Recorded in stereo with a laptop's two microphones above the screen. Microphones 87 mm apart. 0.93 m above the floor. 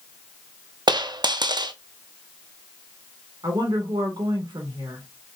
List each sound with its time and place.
0.9 s a dropped coin: 65° right (ahead or behind), 0.5 m
3.4 s a woman speaking: 60° right (ahead or behind), 2.5 m